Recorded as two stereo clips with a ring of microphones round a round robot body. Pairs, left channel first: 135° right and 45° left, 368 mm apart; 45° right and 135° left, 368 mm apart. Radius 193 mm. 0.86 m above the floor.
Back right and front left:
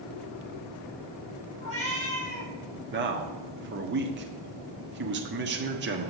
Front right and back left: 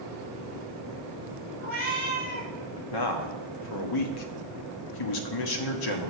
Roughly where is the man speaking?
Ahead.